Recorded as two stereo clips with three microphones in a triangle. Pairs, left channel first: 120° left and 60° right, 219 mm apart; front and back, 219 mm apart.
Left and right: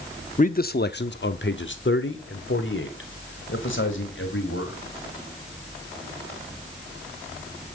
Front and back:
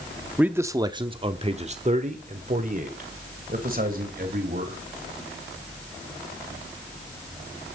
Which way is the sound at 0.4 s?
100° left.